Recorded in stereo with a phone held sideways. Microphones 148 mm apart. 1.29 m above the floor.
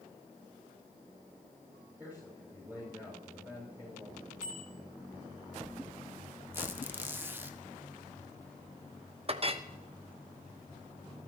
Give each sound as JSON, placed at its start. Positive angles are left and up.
{"t": 2.0, "sound": "a man speaking", "side_deg": -15, "distance_m": 6.5}
{"t": 4.4, "sound": "a bicycle bell", "side_deg": -75, "distance_m": 7.5}
{"t": 6.5, "sound": "a squeak", "side_deg": -15, "distance_m": 1.0}
{"t": 9.3, "sound": "a clink", "side_deg": -40, "distance_m": 1.0}